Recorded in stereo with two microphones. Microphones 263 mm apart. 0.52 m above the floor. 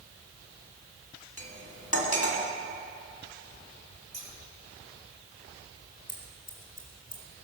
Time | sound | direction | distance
1.4 | cutlery clinking | 80° left | 2 m
4.1 | scissors | 60° right (ahead or behind) | 3.5 m
6.1 | scissors | 90° left | 2.5 m